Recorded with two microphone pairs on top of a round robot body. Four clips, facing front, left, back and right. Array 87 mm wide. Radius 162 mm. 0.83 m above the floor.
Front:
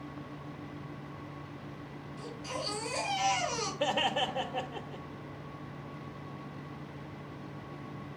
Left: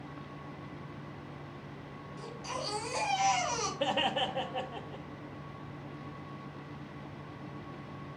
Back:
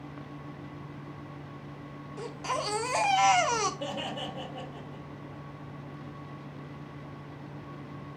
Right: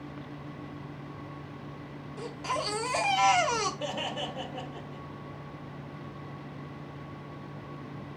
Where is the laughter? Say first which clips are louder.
Left 3 dB, front 5 dB; 35° left, 1.8 m.